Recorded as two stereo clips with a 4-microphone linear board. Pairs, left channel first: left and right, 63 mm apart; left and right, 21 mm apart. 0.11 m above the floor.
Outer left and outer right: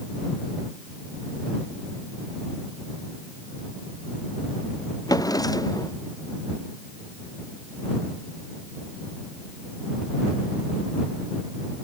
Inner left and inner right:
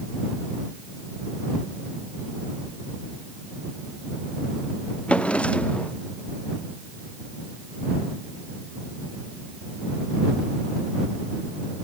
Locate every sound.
5.1 s a drawer: 80° left